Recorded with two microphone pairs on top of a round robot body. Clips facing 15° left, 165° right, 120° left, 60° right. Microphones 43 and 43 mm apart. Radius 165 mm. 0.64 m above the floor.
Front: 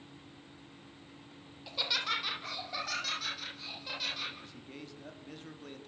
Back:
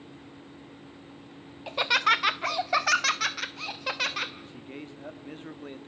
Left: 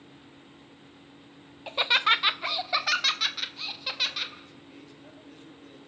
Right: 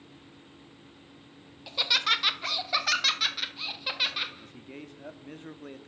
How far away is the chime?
No chime in this recording.